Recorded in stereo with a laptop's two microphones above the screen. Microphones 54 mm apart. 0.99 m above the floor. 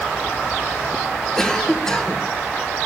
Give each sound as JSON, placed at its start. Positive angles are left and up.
{"t": 1.4, "sound": "a cough", "side_deg": 10, "distance_m": 0.8}